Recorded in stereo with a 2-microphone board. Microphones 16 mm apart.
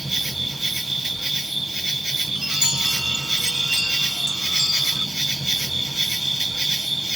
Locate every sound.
0.0 s an insect: 5° right (ahead or behind), 1.0 m
2.4 s a chime: 45° right (ahead or behind), 1.1 m